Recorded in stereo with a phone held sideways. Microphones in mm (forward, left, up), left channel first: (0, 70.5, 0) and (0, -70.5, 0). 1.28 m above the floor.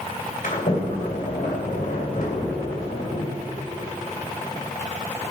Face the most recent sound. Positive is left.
turn(degrees=70)  # may be behind; listen again after turning